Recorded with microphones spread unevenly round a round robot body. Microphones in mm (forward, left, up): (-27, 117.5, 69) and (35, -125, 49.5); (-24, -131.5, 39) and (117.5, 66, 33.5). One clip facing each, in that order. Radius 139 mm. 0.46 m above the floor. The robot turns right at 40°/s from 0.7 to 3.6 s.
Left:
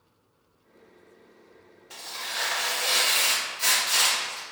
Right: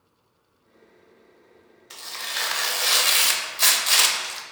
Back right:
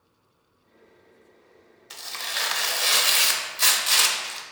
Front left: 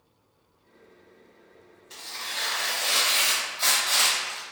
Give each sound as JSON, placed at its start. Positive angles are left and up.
{"t": 1.9, "sound": "tearing paper", "azimuth_deg": -145, "distance_m": 0.5}